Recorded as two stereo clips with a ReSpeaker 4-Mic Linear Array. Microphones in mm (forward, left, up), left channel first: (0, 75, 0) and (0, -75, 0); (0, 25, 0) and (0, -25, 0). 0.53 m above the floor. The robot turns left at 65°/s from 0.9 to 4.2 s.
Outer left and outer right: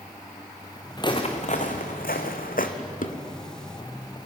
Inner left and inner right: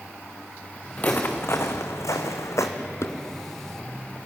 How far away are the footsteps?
About 3 m.